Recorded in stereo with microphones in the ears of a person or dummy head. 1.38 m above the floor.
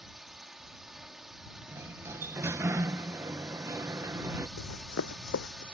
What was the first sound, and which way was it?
A drone, centre (ahead or behind).